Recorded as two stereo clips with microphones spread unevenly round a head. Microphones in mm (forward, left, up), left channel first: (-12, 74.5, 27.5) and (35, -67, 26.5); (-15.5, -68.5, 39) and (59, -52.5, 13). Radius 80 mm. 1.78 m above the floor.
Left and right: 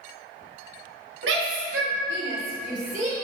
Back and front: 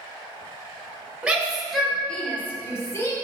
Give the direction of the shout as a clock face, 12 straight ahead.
2 o'clock.